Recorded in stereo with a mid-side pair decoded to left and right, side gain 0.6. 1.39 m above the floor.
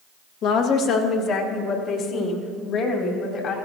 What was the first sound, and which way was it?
A woman speaking, 65° left.